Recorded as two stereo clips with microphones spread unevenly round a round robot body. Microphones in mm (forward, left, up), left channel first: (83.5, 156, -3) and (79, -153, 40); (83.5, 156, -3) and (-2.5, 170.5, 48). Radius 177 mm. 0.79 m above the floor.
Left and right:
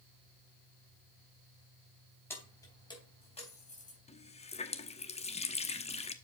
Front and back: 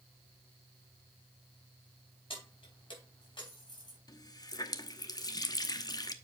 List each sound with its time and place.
2.3 s keys jangling: 5° left, 3.5 m; by 4.0 s 25° left, 3.5 m
4.1 s a running tap: 20° left, 1.0 m